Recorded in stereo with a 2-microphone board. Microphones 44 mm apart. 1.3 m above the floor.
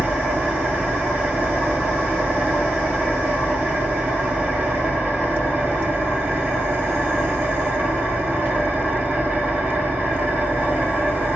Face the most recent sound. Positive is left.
turn(degrees=-50)  # may be behind; listen again after turning